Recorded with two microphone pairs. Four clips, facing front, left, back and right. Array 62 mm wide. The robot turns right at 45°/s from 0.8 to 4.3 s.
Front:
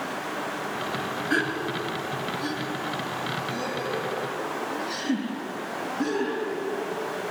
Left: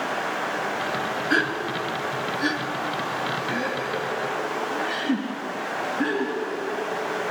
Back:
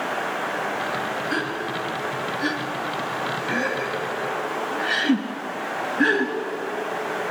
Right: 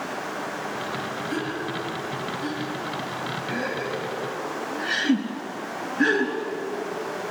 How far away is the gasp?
About 3 m.